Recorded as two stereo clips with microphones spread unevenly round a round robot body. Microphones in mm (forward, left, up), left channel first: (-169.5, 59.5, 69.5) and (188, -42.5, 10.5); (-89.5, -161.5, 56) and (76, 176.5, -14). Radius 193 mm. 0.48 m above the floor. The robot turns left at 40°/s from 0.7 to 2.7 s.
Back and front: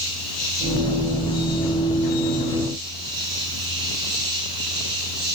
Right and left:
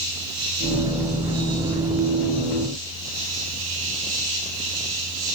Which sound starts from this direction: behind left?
An insect, at 0.0 s.